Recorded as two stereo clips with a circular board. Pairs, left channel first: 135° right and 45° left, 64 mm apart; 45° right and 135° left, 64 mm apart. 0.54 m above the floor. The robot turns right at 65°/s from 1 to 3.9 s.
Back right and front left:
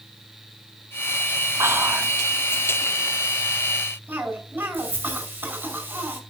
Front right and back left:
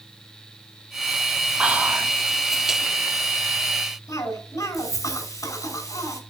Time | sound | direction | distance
1.6 | whispering | 70° left | 1.4 m
4.1 | a cough | 20° right | 4.5 m